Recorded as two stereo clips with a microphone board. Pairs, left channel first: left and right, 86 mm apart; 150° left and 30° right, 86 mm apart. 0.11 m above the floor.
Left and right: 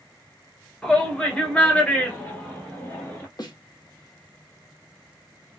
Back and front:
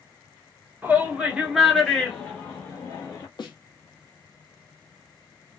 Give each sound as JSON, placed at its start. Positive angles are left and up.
{"t": 0.8, "sound": "a shout", "azimuth_deg": 15, "distance_m": 1.2}
{"t": 3.4, "sound": "a snare drum", "azimuth_deg": 125, "distance_m": 0.8}